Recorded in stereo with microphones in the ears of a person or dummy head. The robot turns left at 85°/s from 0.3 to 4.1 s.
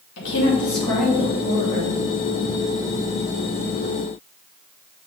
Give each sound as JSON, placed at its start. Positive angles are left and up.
{"t": 0.2, "sound": "a woman speaking", "azimuth_deg": 65, "distance_m": 2.5}